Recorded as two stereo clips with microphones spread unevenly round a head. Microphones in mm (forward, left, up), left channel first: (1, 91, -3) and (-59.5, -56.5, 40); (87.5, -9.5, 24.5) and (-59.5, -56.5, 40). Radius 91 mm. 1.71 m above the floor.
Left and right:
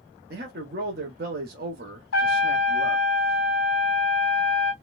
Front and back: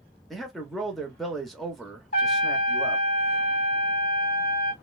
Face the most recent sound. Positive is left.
turn(degrees=75)